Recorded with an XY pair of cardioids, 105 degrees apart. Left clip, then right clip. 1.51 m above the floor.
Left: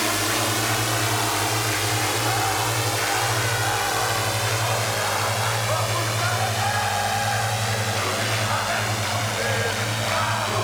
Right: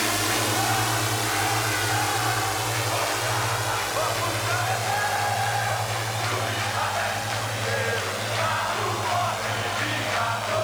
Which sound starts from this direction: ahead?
A drone, at 0.0 s.